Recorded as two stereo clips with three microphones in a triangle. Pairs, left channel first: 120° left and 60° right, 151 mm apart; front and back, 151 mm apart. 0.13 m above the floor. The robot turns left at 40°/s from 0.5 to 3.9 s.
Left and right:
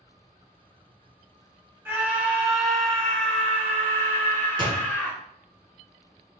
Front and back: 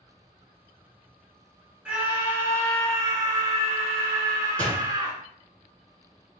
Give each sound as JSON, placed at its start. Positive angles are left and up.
{"t": 1.9, "sound": "a scream", "azimuth_deg": -110, "distance_m": 1.1}
{"t": 4.6, "sound": "a door slam", "azimuth_deg": -75, "distance_m": 1.0}